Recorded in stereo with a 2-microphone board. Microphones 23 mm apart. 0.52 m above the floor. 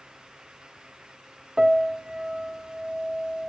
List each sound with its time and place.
1.6 s a piano: 30° right (ahead or behind), 0.6 m